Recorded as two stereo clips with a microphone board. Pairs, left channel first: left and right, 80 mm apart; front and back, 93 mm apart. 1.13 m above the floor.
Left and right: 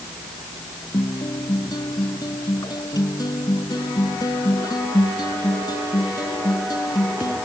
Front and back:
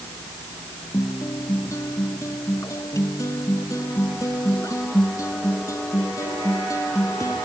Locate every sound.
0.9 s a guitar: 55° left